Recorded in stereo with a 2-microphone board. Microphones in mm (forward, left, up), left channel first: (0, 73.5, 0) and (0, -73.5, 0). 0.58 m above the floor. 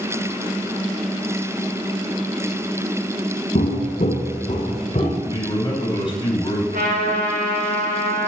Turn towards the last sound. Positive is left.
turn(degrees=-80)